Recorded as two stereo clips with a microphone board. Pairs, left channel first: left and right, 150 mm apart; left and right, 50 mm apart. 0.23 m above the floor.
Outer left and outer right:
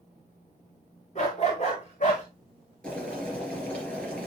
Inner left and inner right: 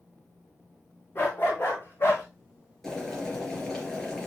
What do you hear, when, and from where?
1.1 s a dog barking: 45° left (ahead or behind), 4.5 m; by 2.2 s 50° left (ahead or behind), 4.5 m
2.8 s boiling: 10° left (ahead or behind), 3.5 m